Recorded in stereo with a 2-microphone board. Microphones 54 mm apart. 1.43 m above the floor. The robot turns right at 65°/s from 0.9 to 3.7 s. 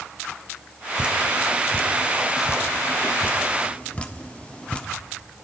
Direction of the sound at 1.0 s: 20° right (ahead or behind).